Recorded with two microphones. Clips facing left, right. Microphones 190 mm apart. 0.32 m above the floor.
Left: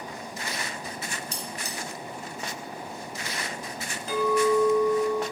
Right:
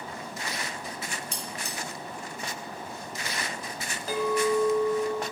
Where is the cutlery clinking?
35° left (ahead or behind), 1.6 m.